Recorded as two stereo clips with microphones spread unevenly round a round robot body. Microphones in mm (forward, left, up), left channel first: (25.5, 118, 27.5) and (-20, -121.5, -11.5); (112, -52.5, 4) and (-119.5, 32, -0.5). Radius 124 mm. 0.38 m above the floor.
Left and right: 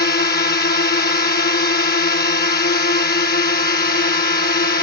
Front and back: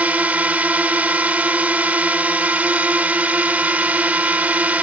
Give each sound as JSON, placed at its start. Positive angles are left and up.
{"t": 0.0, "sound": "a drone", "azimuth_deg": 85}